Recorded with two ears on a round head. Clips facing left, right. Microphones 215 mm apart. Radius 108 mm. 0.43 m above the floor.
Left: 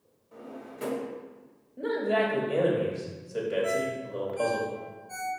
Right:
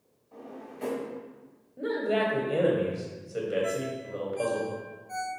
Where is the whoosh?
No whoosh in this recording.